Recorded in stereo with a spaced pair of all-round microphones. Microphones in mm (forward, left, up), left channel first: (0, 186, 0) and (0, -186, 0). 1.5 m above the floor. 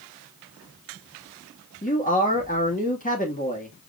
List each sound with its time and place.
1.8 s a man speaking: 20° left (ahead or behind), 2 m